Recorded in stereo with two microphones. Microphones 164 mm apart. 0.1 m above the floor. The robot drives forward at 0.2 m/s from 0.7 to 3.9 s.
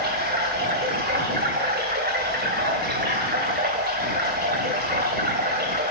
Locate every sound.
0.0 s running water: 80° right, 2 m; by 5.9 s 65° right (ahead or behind), 2 m